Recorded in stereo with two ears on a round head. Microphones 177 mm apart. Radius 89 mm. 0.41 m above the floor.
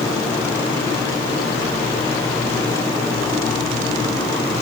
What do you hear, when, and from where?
Only background noise.